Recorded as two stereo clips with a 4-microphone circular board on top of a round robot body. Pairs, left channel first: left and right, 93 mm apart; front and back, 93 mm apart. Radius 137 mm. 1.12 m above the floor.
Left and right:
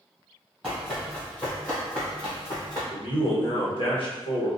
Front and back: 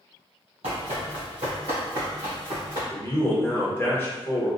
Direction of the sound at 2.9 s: 65° left.